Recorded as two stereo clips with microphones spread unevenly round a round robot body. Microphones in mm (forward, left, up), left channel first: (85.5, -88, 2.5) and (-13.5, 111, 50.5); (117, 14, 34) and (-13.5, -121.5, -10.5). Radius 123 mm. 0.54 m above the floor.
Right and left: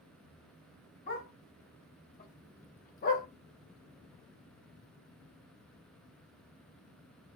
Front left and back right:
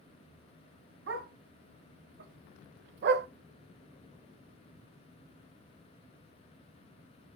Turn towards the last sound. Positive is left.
turn(degrees=-110)